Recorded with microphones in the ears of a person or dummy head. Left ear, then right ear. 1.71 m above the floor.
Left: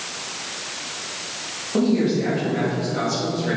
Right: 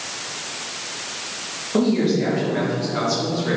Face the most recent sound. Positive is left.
turn(degrees=-20)  # may be behind; listen again after turning